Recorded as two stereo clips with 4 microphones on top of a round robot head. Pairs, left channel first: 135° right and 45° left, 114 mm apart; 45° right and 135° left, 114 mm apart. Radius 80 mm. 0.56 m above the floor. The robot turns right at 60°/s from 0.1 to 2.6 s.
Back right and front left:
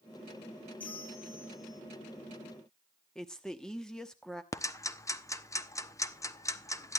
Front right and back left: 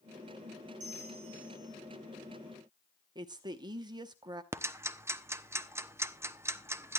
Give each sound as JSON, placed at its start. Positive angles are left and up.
{"t": 0.8, "sound": "a bell", "azimuth_deg": 145, "distance_m": 4.5}
{"t": 3.1, "sound": "a woman speaking", "azimuth_deg": 140, "distance_m": 1.1}
{"t": 4.5, "sound": "ticking", "azimuth_deg": -175, "distance_m": 1.0}